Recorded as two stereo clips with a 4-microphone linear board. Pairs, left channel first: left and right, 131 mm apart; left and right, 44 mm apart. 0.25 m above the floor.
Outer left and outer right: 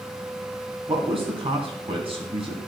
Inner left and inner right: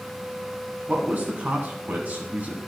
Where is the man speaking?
45° right (ahead or behind), 2.5 m.